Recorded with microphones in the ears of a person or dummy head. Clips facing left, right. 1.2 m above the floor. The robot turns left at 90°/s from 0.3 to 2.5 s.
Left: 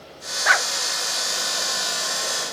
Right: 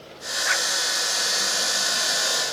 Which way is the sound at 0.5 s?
65° left (ahead or behind).